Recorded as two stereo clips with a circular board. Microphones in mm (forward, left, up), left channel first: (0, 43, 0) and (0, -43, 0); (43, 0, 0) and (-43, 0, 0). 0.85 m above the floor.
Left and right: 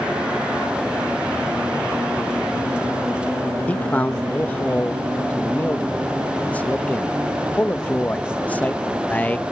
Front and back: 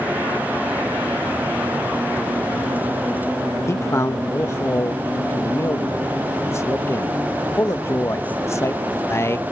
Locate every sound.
3.7 s a man speaking: 30° left